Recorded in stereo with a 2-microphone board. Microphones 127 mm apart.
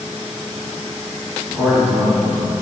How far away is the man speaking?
About 1.0 m.